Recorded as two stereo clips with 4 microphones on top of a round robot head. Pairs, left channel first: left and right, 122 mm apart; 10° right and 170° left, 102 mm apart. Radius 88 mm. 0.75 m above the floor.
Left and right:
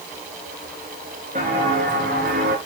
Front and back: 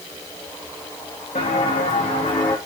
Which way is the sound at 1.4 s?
50° right.